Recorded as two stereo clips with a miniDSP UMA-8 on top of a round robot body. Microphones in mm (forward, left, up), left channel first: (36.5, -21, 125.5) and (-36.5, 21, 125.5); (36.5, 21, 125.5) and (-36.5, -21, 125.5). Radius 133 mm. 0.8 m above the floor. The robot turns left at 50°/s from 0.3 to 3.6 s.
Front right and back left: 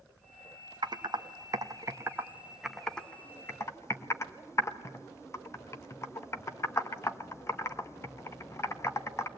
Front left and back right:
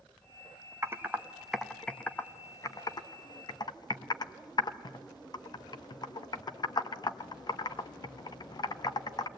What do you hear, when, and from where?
0.8 s typing on a keyboard: 160° left, 1.3 m; by 9.3 s 20° left, 1.3 m